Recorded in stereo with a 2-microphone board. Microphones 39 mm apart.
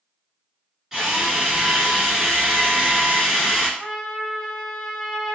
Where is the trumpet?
20° left (ahead or behind), 0.5 m.